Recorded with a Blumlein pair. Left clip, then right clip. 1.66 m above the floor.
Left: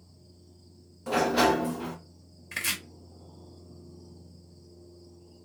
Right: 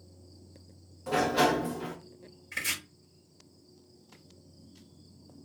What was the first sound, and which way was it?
A sliding door, 10° left.